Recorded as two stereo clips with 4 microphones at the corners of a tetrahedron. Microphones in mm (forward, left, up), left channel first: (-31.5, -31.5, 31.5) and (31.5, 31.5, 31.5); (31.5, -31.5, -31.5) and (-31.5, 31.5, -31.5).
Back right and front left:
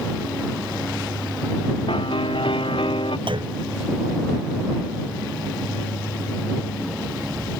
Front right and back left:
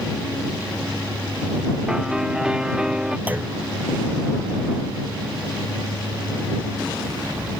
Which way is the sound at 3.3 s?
65° left.